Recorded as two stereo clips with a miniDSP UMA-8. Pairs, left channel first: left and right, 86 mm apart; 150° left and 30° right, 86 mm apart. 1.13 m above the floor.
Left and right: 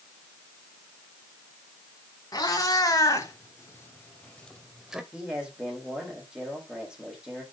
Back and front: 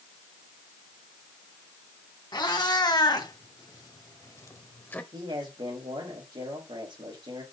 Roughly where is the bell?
I don't hear a bell.